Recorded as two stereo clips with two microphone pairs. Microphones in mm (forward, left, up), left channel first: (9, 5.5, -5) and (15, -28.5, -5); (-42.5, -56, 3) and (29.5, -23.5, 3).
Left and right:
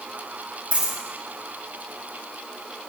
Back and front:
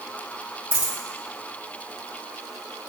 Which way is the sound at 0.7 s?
40° right.